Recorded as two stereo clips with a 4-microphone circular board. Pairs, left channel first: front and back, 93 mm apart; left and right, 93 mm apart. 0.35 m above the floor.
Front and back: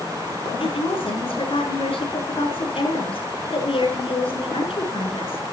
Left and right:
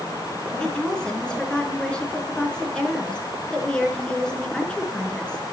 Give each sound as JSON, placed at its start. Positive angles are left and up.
{"t": 0.6, "sound": "a woman speaking", "azimuth_deg": 10, "distance_m": 4.5}